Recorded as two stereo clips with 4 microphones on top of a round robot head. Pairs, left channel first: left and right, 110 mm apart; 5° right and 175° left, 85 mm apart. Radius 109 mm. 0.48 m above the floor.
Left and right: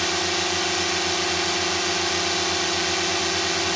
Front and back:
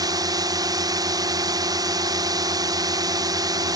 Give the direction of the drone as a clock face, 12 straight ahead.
6 o'clock.